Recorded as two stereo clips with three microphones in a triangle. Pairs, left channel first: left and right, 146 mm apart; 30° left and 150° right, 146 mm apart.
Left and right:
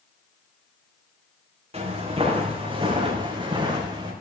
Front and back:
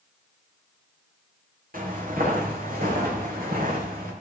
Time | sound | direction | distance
1.7 | footsteps | 135° right | 4 m